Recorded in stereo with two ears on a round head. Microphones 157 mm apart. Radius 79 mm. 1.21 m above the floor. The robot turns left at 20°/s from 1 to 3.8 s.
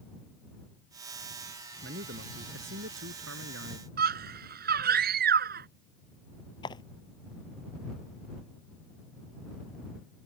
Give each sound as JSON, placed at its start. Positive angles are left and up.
{"t": 1.8, "sound": "a man speaking", "azimuth_deg": -60}
{"t": 4.0, "sound": "a scream", "side_deg": -60}
{"t": 6.6, "sound": "footsteps", "side_deg": 25}